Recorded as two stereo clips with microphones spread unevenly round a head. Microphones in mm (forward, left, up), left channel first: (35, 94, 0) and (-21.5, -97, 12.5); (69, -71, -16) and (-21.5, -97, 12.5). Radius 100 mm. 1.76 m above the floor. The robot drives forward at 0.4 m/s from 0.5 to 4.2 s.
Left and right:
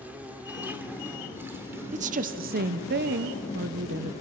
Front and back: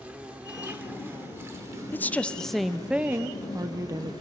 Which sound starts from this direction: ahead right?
A woman speaking, at 1.9 s.